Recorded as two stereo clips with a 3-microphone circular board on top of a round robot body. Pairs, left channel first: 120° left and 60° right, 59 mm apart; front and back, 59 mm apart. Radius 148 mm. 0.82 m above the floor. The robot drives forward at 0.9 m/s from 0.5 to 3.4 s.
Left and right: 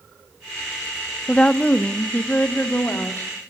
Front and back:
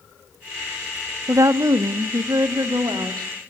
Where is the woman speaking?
170° right, 0.8 m; by 3.3 s 175° right, 2.5 m.